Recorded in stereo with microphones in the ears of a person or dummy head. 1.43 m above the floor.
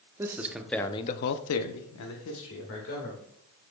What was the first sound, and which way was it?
A man speaking, 20° right (ahead or behind).